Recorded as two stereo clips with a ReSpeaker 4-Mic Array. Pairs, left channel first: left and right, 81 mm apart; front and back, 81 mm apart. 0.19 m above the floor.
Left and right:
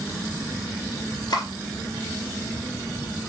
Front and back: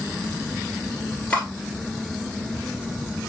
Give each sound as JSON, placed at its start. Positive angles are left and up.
{"t": 1.3, "sound": "cutlery clinking", "azimuth_deg": 70, "distance_m": 1.8}